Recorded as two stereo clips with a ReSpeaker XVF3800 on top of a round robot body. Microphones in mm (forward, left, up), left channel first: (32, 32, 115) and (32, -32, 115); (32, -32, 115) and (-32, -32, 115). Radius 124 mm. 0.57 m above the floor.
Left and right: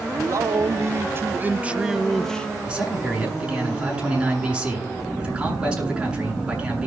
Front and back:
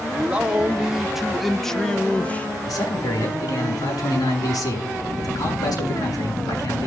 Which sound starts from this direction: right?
A man speaking, at 0.1 s.